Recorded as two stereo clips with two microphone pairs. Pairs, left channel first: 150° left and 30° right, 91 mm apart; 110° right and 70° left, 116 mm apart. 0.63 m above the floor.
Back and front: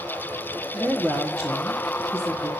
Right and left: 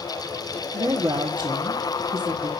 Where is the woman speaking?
60° left, 1.3 m.